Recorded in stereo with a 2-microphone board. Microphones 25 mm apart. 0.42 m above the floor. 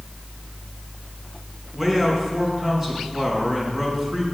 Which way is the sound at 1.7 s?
10° right (ahead or behind).